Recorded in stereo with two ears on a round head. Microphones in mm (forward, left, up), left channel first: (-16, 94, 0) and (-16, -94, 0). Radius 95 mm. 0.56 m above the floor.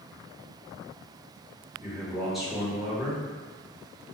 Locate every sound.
1.8 s a man speaking: centre (ahead or behind), 1.4 m